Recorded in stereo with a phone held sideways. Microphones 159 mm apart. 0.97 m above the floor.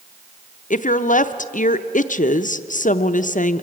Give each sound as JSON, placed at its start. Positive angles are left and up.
{"t": 0.7, "sound": "a woman speaking", "side_deg": 55, "distance_m": 0.6}